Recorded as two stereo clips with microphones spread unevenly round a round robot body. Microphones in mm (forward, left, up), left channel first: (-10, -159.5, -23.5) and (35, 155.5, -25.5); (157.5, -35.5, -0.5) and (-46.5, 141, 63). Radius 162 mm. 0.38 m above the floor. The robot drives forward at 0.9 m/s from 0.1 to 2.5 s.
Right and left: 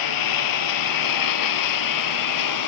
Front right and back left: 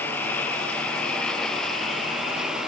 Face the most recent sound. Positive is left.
turn(degrees=-130)